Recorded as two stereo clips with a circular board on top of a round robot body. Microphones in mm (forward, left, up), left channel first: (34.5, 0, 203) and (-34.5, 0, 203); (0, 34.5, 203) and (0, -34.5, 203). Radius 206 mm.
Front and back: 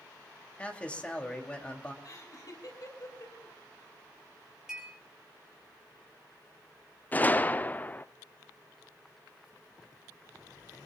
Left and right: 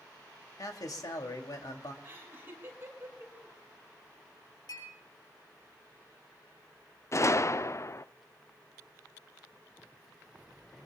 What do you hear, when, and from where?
0.6 s a man speaking: 70° left, 2.5 m
2.0 s laughter: 35° right, 5.5 m
4.7 s a clink: 100° left, 6.5 m
7.1 s a gunshot: 60° left, 0.7 m